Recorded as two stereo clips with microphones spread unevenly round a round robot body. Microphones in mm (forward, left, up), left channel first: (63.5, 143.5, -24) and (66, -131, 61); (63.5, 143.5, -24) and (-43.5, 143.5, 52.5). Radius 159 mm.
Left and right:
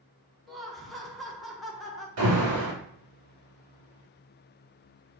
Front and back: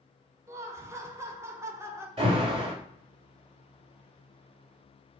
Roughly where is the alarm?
Right.